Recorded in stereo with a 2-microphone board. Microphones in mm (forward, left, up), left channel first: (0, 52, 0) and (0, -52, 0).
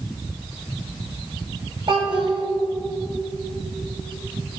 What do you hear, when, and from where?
1.9 s a child speaking: 55° right (ahead or behind), 2 m